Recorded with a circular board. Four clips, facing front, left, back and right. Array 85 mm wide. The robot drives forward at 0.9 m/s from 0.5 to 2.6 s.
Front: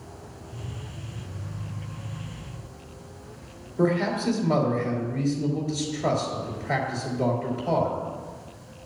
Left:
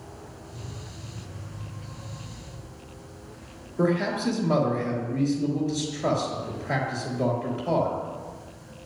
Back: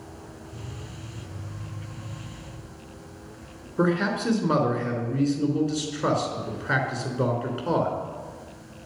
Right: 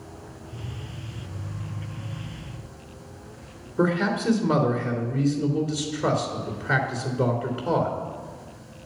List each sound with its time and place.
3.8 s a man speaking: 140° right, 3 m